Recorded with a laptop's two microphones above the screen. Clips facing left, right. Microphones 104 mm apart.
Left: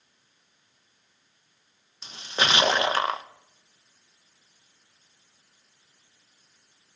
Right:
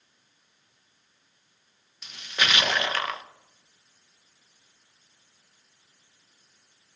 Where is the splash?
30° left (ahead or behind), 0.8 m.